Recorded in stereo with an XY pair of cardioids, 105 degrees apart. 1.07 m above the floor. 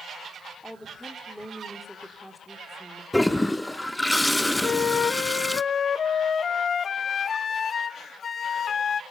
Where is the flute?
45° left, 0.6 m.